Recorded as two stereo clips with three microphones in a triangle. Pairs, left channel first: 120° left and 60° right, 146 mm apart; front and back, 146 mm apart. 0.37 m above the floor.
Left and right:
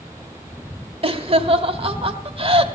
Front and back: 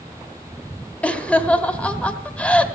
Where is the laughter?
75° right, 1.3 m.